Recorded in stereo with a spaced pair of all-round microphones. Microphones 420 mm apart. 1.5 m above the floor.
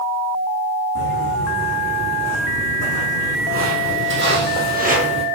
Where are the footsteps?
40° right (ahead or behind), 4.5 m; by 5.2 s 15° right (ahead or behind), 1.9 m.